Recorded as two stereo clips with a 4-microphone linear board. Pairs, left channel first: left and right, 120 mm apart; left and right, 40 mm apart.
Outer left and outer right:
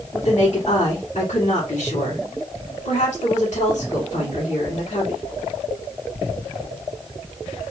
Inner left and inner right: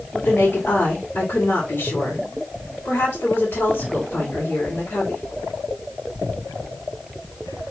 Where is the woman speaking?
65° left (ahead or behind), 2.5 m.